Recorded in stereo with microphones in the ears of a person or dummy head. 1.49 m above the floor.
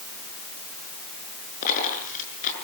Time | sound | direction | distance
1.6 | a dropped coin | 45° left (ahead or behind) | 7.5 m